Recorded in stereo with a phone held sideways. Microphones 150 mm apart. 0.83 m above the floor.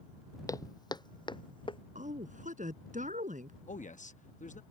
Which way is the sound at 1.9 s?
60° right (ahead or behind).